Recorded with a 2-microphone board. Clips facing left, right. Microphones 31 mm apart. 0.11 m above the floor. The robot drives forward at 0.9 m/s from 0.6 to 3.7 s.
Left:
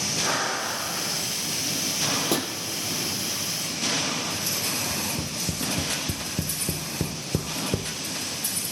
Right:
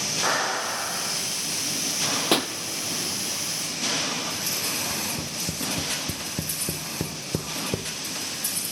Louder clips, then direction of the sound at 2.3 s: Right 3 dB; 45° right (ahead or behind).